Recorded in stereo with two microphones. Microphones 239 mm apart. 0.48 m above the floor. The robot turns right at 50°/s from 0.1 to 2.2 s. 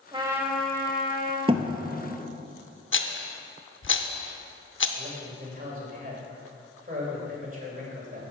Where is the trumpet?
20° right, 0.9 m; by 1.4 s 40° left, 0.9 m.